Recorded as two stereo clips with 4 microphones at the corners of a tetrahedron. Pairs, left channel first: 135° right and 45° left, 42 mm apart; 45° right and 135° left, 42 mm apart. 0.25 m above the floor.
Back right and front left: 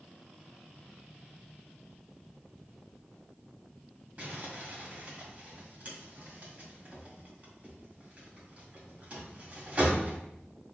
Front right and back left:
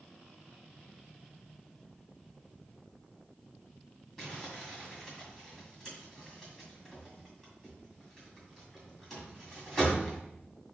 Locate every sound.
4.2 s crumpling: 40° left, 2.0 m